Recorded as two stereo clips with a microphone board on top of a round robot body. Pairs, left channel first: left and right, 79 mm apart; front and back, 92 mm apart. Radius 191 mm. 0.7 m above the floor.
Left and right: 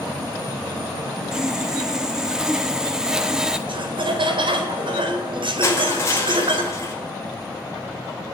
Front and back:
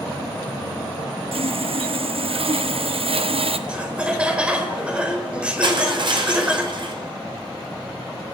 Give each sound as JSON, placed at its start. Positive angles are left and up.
{"t": 1.3, "sound": "sawing", "azimuth_deg": -170, "distance_m": 1.5}
{"t": 3.7, "sound": "laughter", "azimuth_deg": -100, "distance_m": 4.0}
{"t": 5.6, "sound": "crushing", "azimuth_deg": 145, "distance_m": 4.5}